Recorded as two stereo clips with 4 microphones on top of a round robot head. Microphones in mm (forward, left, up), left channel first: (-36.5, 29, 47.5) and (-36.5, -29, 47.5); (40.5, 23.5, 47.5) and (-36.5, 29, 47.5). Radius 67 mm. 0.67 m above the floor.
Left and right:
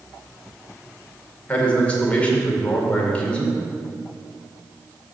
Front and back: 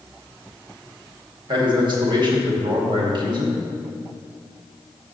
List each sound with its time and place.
1.5 s a man speaking: 160° left, 2 m